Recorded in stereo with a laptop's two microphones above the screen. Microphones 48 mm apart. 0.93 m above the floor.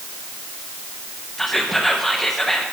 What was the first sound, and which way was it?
Whispering, 5° left (ahead or behind).